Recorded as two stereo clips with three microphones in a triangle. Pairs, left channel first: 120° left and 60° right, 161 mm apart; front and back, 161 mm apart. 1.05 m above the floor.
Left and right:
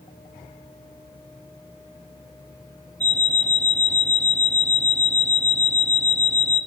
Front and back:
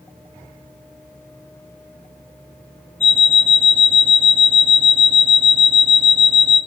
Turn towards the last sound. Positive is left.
turn(degrees=-75)